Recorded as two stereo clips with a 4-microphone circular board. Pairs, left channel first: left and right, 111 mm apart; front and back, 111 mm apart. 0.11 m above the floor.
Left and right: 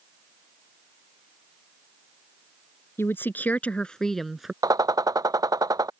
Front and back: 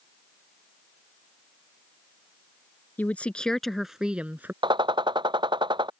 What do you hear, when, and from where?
3.0 s a woman speaking: 55° left; by 4.5 s 170° right
4.6 s a gunshot: 145° right